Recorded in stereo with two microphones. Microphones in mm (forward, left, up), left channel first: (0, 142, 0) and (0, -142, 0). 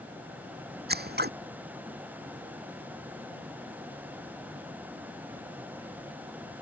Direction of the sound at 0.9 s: 35° right (ahead or behind).